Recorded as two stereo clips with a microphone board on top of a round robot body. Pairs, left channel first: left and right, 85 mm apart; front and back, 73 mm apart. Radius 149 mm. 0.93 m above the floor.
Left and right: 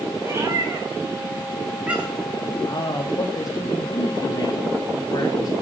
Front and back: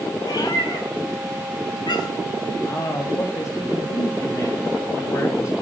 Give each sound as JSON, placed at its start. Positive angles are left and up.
{"t": 0.2, "sound": "a cat meowing", "azimuth_deg": -30, "distance_m": 4.0}
{"t": 2.6, "sound": "a man speaking", "azimuth_deg": 45, "distance_m": 2.0}